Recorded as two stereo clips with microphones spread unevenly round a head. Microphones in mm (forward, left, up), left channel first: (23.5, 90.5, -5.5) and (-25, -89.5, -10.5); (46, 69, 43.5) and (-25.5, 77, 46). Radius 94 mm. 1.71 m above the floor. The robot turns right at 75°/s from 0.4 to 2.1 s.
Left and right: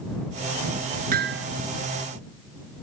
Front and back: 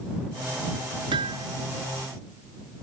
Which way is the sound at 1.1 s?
150° right.